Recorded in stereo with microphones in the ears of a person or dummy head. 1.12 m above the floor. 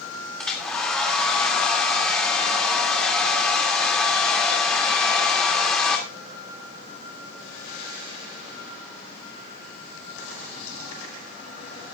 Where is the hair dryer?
Centre (ahead or behind), 2.5 m.